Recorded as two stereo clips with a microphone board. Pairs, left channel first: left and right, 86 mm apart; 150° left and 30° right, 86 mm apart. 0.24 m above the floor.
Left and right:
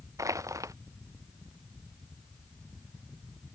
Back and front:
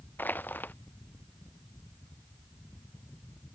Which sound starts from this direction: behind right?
Crushing, at 0.2 s.